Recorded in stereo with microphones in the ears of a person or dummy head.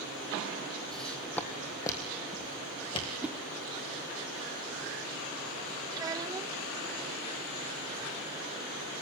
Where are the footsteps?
Centre (ahead or behind), 2.5 m; by 3.1 s 30° left (ahead or behind), 3.5 m.